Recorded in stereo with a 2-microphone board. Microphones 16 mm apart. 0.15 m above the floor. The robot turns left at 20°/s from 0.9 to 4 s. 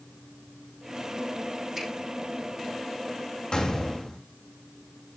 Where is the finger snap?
5° right (ahead or behind), 5.5 m.